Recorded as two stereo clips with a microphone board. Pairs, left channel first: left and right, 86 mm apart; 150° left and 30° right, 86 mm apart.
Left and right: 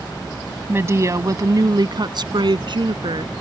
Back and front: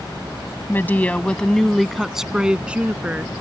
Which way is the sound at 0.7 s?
150° right.